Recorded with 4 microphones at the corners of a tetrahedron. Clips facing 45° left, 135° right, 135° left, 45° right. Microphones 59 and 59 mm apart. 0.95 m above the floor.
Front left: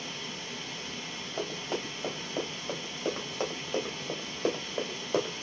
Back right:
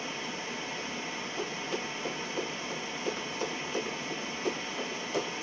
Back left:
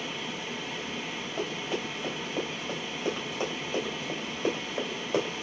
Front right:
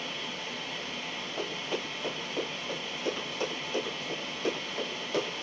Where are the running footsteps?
55° left, 3.5 m; by 5.4 s 70° left, 1.7 m.